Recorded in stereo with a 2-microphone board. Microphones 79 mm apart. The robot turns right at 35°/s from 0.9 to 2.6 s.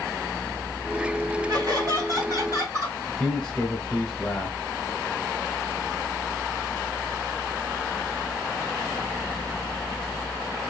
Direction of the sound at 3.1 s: 10° left (ahead or behind).